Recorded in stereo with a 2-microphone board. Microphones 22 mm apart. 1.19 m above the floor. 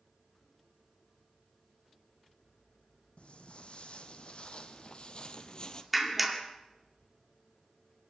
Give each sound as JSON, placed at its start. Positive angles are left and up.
{"t": 3.2, "sound": "footsteps", "side_deg": 55, "distance_m": 3.5}
{"t": 5.9, "sound": "a clap", "side_deg": -5, "distance_m": 2.5}